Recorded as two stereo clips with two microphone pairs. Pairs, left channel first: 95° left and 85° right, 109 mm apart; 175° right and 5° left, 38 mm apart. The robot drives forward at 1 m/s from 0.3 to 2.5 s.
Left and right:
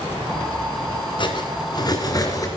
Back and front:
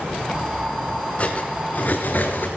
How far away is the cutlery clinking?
About 1.8 m.